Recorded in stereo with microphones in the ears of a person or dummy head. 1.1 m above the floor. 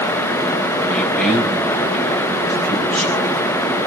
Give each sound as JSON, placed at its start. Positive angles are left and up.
{"t": 0.9, "sound": "a man speaking", "side_deg": 5, "distance_m": 8.0}